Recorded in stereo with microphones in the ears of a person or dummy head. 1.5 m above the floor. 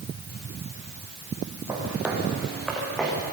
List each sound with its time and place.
1.7 s footsteps: 15° right (ahead or behind), 4.5 m; by 3.1 s 5° left (ahead or behind), 6 m